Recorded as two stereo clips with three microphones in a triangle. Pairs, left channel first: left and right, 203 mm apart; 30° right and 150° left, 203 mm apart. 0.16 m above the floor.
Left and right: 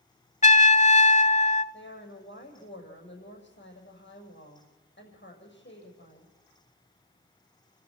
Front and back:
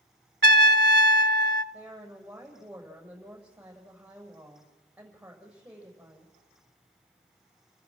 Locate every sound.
0.4 s a trumpet: 135° left, 0.6 m
1.7 s a woman speaking: 65° left, 7 m